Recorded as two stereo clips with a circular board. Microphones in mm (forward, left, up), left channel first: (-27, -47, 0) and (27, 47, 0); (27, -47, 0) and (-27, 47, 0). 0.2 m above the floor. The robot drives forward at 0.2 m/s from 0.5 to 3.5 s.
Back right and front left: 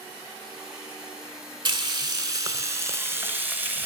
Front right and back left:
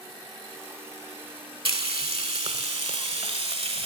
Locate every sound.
1.6 s frying: 95° left, 0.6 m; by 3.9 s 130° left, 0.7 m